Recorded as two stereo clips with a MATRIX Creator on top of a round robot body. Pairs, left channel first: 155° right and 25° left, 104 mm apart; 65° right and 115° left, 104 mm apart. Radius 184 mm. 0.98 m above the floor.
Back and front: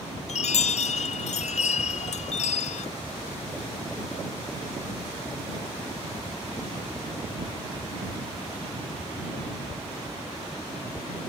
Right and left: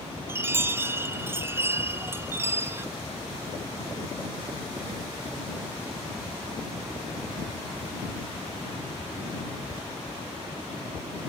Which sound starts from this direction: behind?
A chime, at 0.3 s.